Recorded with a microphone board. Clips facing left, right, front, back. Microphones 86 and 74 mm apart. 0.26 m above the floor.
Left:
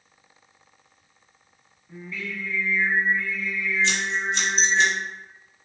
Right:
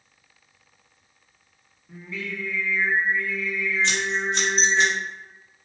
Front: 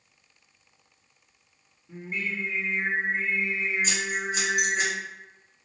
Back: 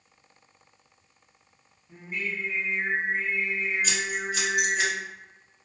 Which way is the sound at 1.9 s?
35° right.